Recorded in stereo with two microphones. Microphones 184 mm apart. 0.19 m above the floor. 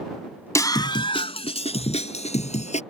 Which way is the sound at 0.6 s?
15° left (ahead or behind).